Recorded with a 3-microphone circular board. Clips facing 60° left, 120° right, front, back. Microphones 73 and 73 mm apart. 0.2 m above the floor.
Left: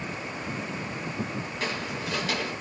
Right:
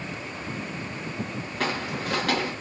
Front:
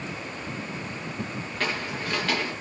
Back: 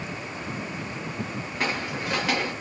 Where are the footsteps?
105° right, 1.6 m.